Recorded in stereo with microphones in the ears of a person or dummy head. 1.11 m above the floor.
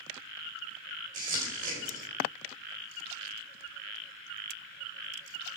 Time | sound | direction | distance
1.1 | crumpling | 45° right (ahead or behind) | 3.5 m